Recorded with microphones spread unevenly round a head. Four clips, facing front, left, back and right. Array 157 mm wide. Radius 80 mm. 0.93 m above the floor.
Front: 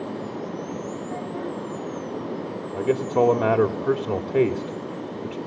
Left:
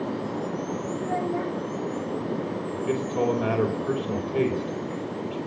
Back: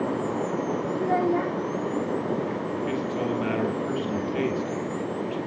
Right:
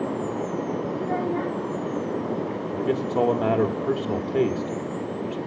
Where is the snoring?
No snoring in this recording.